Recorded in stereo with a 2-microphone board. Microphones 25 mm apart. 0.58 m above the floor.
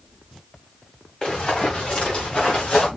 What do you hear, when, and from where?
1.2 s running footsteps: 30° left (ahead or behind), 5 m; by 2.9 s 50° left (ahead or behind), 4.5 m